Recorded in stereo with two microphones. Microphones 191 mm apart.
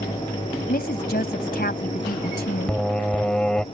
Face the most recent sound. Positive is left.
turn(degrees=5)  # may be behind; listen again after turning